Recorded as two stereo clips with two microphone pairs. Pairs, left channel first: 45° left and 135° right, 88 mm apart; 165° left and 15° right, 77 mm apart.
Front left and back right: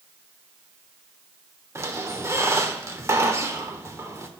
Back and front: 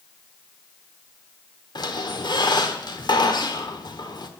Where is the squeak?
170° left, 1.3 m.